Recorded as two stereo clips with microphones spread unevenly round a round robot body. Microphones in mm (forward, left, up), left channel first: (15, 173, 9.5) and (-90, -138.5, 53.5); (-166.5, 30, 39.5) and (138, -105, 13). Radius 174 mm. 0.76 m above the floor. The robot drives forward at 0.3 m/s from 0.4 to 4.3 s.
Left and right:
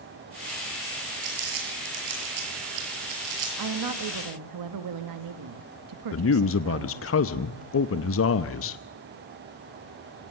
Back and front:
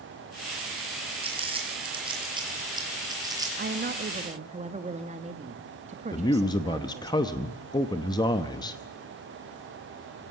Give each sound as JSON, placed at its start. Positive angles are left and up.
{"t": 1.2, "sound": "crumpling", "azimuth_deg": -100, "distance_m": 7.0}
{"t": 3.6, "sound": "a woman speaking", "azimuth_deg": -75, "distance_m": 1.4}
{"t": 6.1, "sound": "a man speaking", "azimuth_deg": 75, "distance_m": 0.8}